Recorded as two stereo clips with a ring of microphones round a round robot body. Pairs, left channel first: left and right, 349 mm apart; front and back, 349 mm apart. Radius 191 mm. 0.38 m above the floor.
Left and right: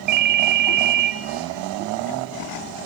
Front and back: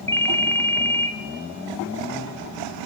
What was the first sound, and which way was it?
A ringtone, 80° right.